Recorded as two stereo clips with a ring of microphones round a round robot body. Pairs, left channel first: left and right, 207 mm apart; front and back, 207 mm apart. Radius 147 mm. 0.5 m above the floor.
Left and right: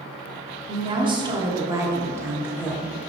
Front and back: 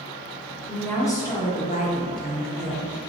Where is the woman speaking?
85° right, 1.0 m; by 2.9 s 10° right, 1.5 m.